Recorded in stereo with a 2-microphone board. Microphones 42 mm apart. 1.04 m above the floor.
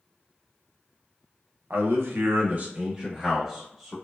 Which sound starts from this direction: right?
A man speaking, at 1.7 s.